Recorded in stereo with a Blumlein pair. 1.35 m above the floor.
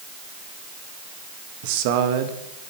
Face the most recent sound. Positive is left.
turn(degrees=-50)